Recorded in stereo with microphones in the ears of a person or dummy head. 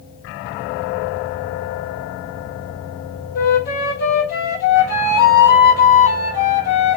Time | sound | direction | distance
3.4 | a flute | 45° left (ahead or behind) | 1.1 m